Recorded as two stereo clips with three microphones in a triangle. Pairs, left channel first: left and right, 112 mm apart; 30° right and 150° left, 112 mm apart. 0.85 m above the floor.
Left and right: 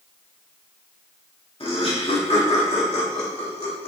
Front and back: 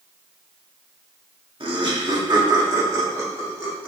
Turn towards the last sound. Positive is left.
turn(degrees=80)